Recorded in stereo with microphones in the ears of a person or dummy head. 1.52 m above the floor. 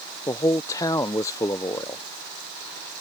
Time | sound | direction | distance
0.3 | a man speaking | 15° left (ahead or behind) | ?